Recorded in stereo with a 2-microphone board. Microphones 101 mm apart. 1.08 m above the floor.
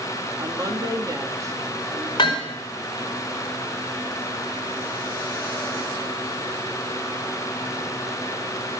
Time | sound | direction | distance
0.4 | a woman speaking | 35° right (ahead or behind) | 2.5 m
2.2 | hammering | 50° left (ahead or behind) | 4.5 m